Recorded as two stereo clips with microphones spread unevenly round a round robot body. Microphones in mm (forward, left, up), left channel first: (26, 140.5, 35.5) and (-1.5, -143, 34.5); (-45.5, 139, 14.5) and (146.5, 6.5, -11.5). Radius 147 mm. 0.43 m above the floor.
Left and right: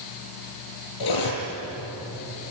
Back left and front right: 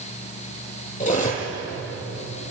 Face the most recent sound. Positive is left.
turn(degrees=90)